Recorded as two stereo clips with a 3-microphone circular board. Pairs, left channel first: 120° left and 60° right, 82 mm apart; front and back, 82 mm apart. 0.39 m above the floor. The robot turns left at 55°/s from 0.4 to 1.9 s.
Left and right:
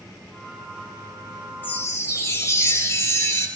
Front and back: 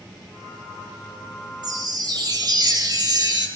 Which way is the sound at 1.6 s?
Straight behind.